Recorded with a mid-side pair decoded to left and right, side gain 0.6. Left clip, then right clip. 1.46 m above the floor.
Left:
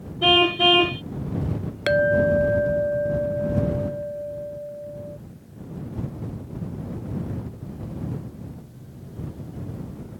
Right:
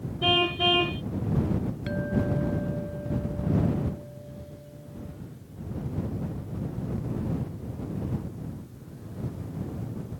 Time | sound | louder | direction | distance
0.2 | a car horn | left 6 dB | 35° left | ?
1.9 | a clink | left 14 dB | 65° left | ?